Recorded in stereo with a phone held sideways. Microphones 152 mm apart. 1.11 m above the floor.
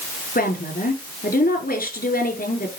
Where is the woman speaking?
80° left, 3.5 m.